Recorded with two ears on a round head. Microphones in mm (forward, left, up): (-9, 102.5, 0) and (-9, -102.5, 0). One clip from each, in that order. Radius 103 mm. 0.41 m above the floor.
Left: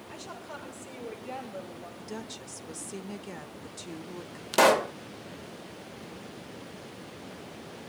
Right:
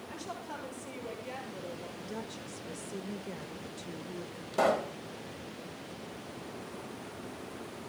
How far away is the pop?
About 0.6 m.